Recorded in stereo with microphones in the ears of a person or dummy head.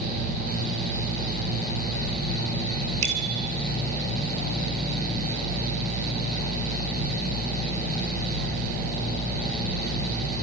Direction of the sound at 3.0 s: 40° right (ahead or behind).